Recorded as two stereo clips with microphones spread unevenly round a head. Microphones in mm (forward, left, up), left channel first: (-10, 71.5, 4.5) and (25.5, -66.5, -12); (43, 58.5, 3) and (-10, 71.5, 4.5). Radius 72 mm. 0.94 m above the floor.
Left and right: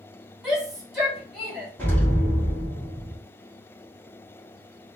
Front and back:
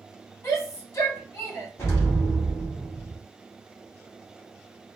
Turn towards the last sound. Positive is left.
turn(degrees=25)